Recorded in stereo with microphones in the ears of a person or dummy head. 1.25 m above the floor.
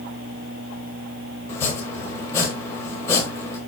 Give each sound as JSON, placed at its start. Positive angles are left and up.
{"t": 1.5, "sound": "chopping", "side_deg": 20, "distance_m": 1.2}